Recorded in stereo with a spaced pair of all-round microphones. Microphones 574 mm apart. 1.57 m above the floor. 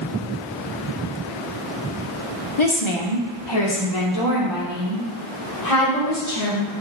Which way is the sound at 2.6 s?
55° left (ahead or behind).